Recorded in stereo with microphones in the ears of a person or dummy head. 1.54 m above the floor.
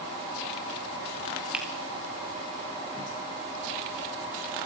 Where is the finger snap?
5° right (ahead or behind), 3 m.